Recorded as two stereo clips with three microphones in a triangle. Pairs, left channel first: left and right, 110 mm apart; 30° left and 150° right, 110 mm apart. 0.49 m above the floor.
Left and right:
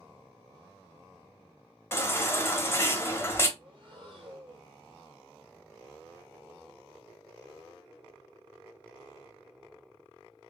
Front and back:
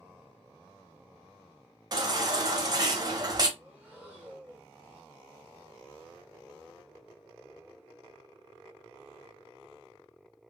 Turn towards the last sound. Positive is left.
turn(degrees=-80)